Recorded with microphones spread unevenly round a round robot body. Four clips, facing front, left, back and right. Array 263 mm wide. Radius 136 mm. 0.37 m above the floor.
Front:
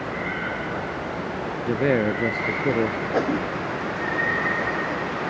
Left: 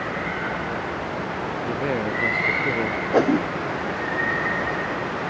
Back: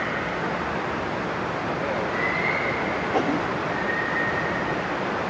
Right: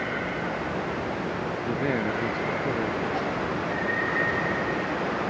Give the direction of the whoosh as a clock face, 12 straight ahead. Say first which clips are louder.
Left 9 dB, even; 9 o'clock.